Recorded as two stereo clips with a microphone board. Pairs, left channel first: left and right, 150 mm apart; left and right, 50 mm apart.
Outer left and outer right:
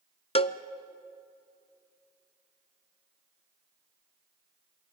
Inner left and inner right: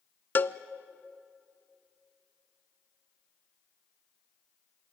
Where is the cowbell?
40° left (ahead or behind), 0.6 m.